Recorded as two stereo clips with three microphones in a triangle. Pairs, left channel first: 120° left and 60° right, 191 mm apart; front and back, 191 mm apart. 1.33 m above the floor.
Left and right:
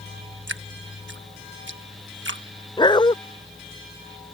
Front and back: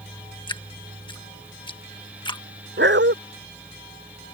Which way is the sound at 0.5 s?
65° right.